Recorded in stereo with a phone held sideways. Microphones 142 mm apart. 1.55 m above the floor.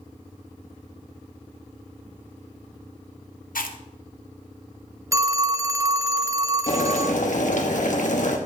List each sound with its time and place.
3.5 s chewing: 80° left, 0.7 m
5.1 s a phone ringing: 20° right (ahead or behind), 0.5 m
6.7 s boiling: 60° left (ahead or behind), 1.1 m